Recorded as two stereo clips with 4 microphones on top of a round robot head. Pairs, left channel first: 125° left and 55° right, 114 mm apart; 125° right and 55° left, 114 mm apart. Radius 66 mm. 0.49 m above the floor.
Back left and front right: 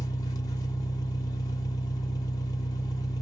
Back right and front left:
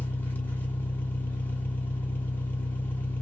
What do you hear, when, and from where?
0.0 s an engine running: 165° left, 1.2 m